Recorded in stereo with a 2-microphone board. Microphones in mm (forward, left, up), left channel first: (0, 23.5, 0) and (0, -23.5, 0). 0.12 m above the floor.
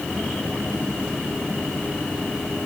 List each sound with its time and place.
Only background noise.